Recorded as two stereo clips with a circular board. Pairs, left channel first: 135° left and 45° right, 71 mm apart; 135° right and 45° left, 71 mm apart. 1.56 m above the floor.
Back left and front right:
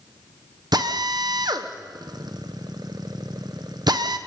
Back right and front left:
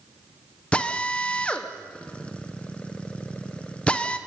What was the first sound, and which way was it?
A drill, 60° right.